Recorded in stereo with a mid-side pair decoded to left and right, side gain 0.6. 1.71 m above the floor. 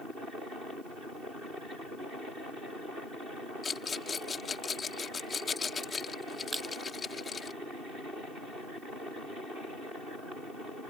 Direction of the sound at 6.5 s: 10° right.